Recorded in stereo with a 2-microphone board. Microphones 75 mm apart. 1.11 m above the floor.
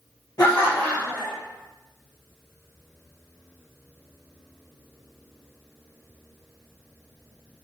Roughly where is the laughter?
Left.